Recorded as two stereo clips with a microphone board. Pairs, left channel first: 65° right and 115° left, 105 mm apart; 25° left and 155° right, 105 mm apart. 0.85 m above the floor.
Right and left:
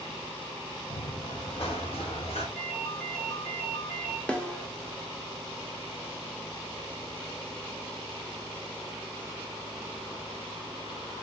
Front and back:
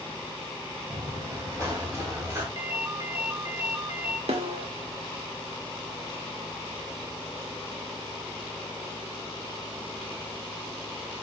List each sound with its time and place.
0.9 s running footsteps: 100° right, 5 m; by 2.5 s 90° right, 5.5 m
2.5 s a ringtone: 85° right, 5 m
4.3 s a snare drum: 150° right, 2.0 m